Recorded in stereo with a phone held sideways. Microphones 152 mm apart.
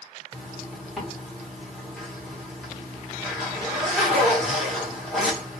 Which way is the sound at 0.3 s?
Centre (ahead or behind).